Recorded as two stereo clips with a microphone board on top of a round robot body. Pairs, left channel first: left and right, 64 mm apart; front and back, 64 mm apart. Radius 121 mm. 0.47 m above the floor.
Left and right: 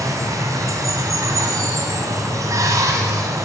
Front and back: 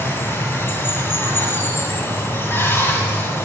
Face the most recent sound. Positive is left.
turn(degrees=-55)